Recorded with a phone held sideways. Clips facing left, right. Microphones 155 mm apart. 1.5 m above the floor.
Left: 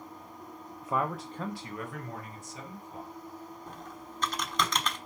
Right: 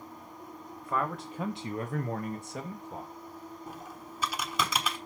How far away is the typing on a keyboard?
About 1.2 m.